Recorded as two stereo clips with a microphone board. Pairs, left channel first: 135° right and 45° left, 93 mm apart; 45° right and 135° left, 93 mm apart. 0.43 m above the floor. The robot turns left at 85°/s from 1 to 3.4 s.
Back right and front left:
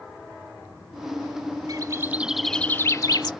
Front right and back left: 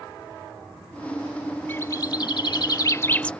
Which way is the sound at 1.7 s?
15° left.